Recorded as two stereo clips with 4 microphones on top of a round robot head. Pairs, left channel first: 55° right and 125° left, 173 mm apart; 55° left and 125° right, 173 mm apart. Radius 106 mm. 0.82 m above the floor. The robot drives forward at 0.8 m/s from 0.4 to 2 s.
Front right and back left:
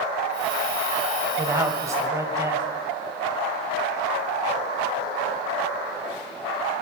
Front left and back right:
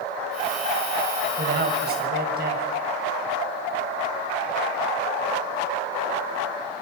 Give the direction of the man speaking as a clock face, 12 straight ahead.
5 o'clock.